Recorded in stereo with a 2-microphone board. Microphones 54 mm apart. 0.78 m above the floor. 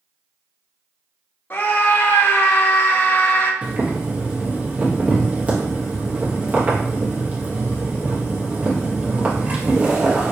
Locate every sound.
1.5 s a scream: 45° left (ahead or behind), 0.7 m
3.6 s boiling: 25° right (ahead or behind), 0.9 m